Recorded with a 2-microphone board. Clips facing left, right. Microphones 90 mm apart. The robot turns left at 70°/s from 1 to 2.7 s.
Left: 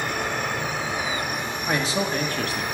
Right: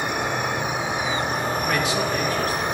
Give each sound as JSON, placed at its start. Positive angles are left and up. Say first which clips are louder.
{"t": 0.0, "sound": "an insect", "louder": "right 2 dB", "azimuth_deg": -25, "distance_m": 0.7}
{"t": 1.7, "sound": "a man speaking", "louder": "left 2 dB", "azimuth_deg": 160, "distance_m": 1.4}